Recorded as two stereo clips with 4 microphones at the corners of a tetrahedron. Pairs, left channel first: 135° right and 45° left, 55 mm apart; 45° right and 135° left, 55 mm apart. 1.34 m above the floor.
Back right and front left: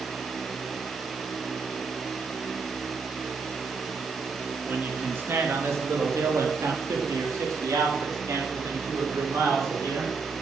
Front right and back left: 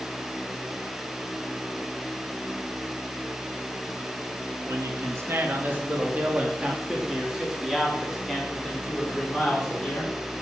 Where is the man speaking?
100° left, 2.5 m; by 10.4 s 30° left, 6 m.